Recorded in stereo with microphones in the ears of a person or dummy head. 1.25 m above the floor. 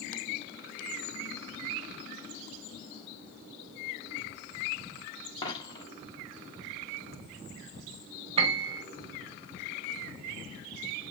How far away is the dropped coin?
About 1.2 m.